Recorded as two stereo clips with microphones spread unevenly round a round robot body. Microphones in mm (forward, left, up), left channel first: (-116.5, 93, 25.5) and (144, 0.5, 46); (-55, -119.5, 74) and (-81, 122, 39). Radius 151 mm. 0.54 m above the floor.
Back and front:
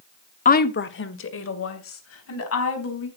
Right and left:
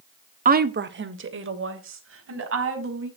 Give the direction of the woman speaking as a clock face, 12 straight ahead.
8 o'clock.